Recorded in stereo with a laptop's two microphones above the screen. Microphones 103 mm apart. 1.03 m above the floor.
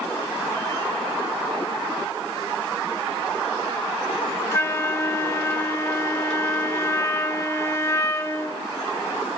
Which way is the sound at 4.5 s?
30° left (ahead or behind).